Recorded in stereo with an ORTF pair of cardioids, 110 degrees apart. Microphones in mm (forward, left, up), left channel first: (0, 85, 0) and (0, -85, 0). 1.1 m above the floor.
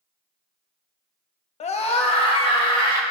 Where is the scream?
40° left, 1.1 m; by 3.0 s 30° left, 3.5 m.